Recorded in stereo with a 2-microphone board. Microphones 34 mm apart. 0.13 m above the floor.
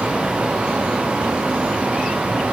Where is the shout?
No shout in this recording.